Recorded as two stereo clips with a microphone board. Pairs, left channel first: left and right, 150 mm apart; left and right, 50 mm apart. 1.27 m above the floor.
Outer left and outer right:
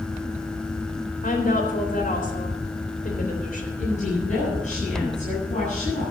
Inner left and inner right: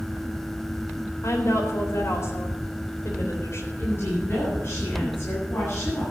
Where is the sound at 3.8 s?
55° left (ahead or behind), 10 m.